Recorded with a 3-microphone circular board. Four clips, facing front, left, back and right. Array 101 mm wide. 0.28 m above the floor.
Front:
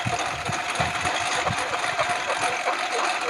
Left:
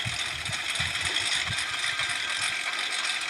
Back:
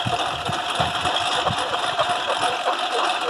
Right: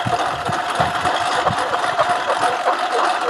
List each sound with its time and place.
0.0 s a lawn mower: 100° right